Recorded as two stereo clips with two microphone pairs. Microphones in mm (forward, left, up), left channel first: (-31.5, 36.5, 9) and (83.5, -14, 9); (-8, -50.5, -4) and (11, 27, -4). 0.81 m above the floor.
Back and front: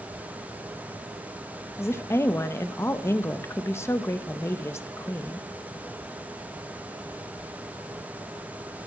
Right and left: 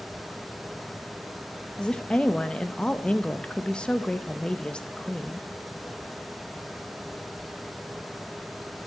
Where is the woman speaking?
160° right, 0.7 m.